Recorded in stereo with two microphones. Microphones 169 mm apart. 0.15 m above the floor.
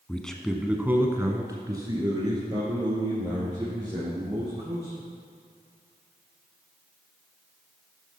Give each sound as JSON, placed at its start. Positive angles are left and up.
{"t": 0.1, "sound": "a man speaking", "side_deg": 10, "distance_m": 1.1}